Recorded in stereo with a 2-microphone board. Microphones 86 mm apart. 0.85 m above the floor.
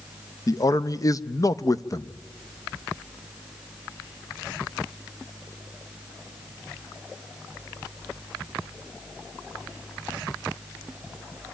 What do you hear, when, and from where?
0.5 s a man speaking: 40° left (ahead or behind), 0.6 m